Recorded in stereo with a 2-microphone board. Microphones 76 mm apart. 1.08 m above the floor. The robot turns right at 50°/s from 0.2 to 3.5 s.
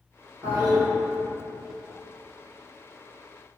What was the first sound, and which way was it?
A toilet flushing, 30° right (ahead or behind).